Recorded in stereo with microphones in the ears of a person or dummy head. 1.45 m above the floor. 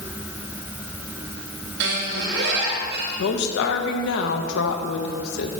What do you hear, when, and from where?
1.8 s a squeak: 65° right (ahead or behind), 2.5 m
3.2 s a woman speaking: 75° left (ahead or behind), 1.2 m